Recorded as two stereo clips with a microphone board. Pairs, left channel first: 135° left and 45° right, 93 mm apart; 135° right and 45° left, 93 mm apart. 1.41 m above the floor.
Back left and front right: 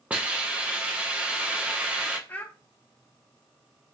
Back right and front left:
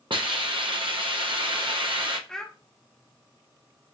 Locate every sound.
0.1 s a hiss: 30° left, 0.7 m
2.3 s a child speaking: 155° left, 0.5 m